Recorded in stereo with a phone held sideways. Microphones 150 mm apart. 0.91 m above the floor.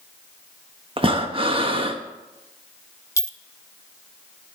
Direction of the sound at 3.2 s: 20° left (ahead or behind).